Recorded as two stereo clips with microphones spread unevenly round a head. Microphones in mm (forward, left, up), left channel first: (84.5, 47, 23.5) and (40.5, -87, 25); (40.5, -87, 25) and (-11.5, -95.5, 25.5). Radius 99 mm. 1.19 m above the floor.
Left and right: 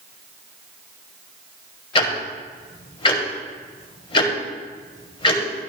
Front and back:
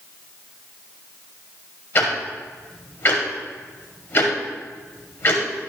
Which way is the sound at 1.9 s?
40° left.